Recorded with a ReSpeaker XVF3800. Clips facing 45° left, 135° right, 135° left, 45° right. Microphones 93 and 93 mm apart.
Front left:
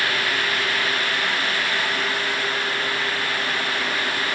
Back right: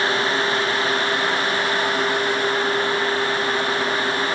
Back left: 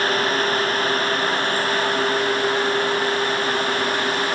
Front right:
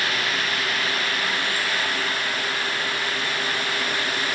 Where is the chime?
No chime in this recording.